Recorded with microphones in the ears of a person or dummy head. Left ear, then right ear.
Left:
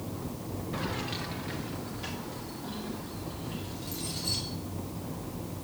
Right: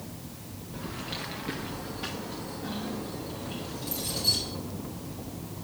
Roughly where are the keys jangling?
Left.